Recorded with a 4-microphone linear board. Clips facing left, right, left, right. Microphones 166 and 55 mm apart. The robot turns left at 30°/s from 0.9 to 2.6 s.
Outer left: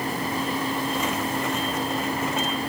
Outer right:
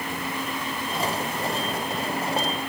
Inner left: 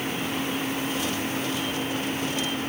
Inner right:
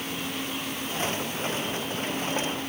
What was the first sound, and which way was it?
Only background noise.